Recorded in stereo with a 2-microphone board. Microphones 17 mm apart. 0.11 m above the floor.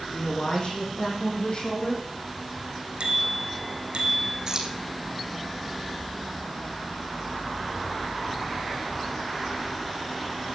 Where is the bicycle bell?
75° right (ahead or behind), 3.5 m.